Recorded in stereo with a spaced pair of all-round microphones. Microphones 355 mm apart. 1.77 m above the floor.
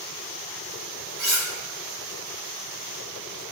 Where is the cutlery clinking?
30° right (ahead or behind), 1.9 m.